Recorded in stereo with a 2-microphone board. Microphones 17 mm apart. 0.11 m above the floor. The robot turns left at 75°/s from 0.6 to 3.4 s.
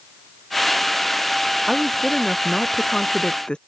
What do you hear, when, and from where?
1.7 s a woman speaking: 160° right; by 3.6 s 70° left